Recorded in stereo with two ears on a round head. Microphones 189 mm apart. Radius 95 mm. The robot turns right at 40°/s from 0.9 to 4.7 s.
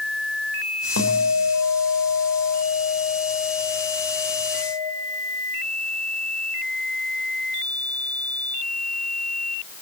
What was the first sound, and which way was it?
A guitar, 80° left.